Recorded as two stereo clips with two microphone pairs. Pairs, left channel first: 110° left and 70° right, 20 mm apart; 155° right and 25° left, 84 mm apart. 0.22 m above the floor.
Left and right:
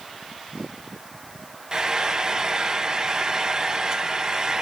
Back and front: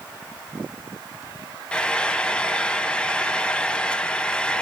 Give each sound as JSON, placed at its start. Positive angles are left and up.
{"t": 1.7, "sound": "frying", "azimuth_deg": -85, "distance_m": 0.8}